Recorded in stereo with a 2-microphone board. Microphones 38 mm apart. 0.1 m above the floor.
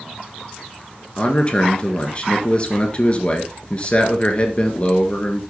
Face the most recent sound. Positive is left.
turn(degrees=35)  # may be behind; listen again after turning